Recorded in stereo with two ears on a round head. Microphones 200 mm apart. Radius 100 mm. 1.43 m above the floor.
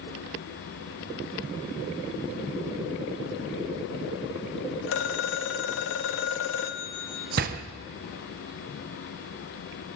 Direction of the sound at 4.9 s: 60° left (ahead or behind).